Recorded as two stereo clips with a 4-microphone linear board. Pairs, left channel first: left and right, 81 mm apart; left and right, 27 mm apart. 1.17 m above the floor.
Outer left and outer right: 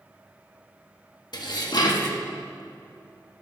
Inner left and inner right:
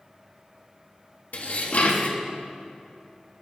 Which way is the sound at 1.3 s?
60° left (ahead or behind).